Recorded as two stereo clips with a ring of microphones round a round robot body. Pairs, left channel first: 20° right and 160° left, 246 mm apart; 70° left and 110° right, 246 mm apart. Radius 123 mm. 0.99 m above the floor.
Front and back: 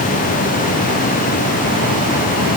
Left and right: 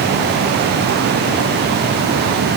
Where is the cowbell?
No cowbell in this recording.